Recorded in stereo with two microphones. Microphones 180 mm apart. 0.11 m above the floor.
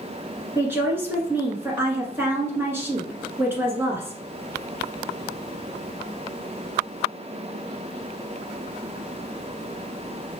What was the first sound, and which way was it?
A woman speaking, 15° right (ahead or behind).